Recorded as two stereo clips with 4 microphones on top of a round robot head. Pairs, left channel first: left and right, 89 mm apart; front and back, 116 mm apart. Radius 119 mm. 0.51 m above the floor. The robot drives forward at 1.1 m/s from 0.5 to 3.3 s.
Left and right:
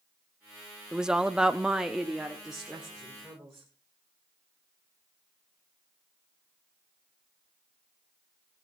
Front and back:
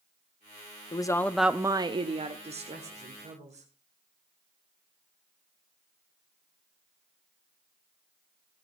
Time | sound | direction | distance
0.9 | a woman speaking | 10° right | 0.9 m